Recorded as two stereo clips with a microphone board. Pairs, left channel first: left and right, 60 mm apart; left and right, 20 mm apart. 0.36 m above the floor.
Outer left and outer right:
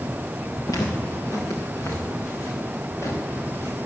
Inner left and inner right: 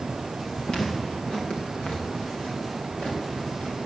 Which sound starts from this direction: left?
Footsteps, at 0.7 s.